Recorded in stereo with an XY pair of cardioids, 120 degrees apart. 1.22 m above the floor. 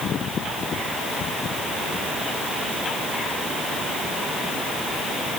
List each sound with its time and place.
Only background noise.